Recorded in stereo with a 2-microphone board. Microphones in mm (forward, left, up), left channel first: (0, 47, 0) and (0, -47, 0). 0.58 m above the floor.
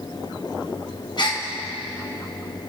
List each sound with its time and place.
1.2 s a gasp: 55° left (ahead or behind), 2 m